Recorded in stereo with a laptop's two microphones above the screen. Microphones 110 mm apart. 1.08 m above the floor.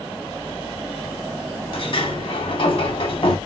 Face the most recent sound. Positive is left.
turn(degrees=50)  # may be behind; listen again after turning